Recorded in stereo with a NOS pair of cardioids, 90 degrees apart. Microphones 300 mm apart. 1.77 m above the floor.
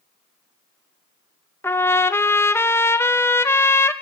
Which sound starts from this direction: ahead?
A trumpet, at 1.6 s.